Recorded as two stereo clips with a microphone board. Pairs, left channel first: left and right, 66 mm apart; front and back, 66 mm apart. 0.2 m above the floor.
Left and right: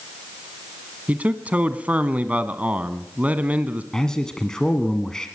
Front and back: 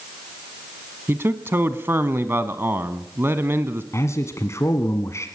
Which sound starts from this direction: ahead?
A man speaking, at 3.9 s.